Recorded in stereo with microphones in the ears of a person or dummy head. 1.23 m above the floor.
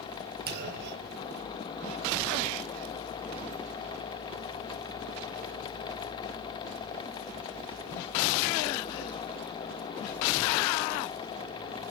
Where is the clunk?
45° right (ahead or behind), 3 m.